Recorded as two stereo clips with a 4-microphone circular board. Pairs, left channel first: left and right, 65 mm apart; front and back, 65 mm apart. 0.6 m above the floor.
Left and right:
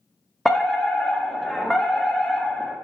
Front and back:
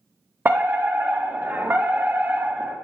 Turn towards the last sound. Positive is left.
turn(degrees=175)